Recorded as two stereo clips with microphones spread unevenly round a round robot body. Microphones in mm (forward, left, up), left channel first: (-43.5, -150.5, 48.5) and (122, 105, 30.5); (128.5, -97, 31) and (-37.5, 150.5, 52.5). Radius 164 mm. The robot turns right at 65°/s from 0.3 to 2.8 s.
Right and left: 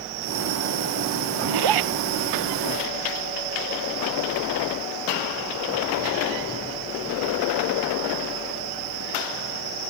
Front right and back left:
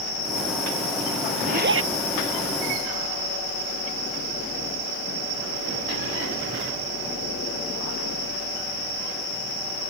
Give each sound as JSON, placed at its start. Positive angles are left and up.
{"t": 1.4, "sound": "a zipper", "azimuth_deg": 55}